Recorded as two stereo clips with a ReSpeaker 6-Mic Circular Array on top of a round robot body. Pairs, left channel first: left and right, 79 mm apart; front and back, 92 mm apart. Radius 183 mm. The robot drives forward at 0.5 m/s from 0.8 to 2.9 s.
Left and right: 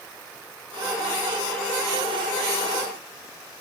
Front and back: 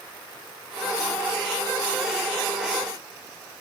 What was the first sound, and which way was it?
Only background noise.